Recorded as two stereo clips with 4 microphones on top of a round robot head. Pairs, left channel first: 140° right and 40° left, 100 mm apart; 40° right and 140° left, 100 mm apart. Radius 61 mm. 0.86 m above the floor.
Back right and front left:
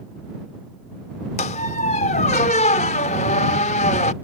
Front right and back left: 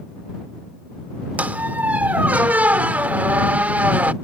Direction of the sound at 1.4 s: 145° right.